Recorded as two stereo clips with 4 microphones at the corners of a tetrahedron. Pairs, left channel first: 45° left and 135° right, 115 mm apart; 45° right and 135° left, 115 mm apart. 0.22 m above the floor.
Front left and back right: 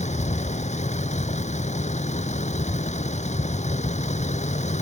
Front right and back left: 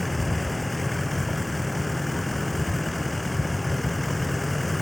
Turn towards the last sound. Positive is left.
turn(degrees=45)